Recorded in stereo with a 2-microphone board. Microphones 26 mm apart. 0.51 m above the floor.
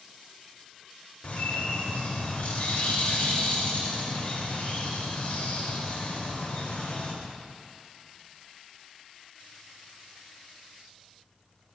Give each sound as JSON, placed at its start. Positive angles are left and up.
{"t": 1.2, "sound": "a bird", "side_deg": 55, "distance_m": 1.1}